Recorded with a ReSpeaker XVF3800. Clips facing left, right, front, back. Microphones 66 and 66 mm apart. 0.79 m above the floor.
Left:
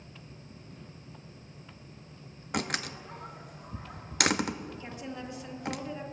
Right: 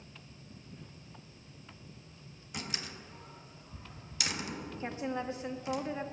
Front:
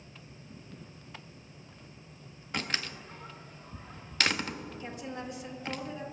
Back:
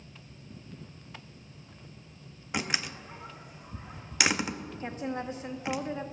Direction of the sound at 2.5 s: 105° left.